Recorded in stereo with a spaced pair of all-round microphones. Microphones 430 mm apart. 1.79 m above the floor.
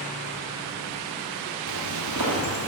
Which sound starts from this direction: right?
Footsteps, at 1.7 s.